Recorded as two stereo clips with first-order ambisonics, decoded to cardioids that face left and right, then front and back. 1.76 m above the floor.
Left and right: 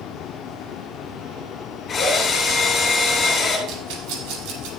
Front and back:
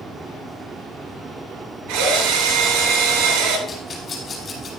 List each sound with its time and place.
1.9 s a drill: 165° left, 8 m
3.7 s a rattle: 70° right, 6 m